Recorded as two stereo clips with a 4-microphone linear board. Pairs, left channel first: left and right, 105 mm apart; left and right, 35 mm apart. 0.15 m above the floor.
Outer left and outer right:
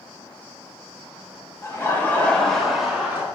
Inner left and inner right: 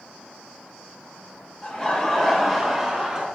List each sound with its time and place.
1.6 s laughter: 30° left (ahead or behind), 1.6 m; by 3.2 s 15° right (ahead or behind), 1.6 m